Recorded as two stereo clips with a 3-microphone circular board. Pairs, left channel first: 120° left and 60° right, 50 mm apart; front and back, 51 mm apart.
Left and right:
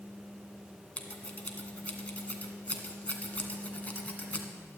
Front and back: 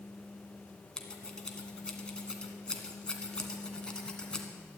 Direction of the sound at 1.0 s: 70° left.